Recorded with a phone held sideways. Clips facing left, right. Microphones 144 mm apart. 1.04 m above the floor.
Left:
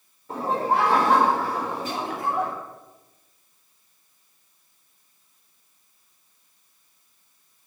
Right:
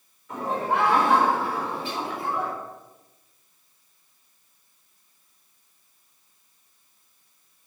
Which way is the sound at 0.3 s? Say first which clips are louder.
Left 2 dB; 30° left (ahead or behind).